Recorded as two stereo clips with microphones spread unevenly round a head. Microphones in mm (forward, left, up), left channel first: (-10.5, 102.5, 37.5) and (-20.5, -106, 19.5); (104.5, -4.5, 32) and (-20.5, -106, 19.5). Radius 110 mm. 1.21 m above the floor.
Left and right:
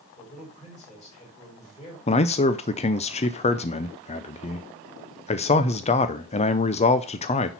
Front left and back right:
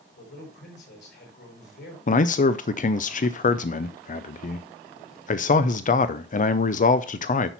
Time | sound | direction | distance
0.2 | a man speaking | 25° left | 5.5 m
2.1 | a man speaking | 35° left | 0.5 m